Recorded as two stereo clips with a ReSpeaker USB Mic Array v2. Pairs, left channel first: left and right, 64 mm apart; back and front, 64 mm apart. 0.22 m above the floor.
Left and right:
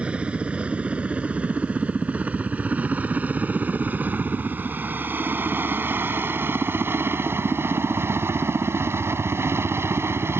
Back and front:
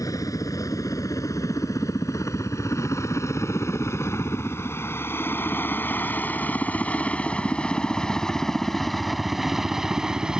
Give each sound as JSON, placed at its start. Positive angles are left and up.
{"t": 0.0, "sound": "a helicopter", "azimuth_deg": -165}